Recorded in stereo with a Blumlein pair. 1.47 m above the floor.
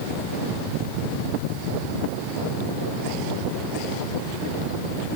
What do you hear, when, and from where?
Only background noise.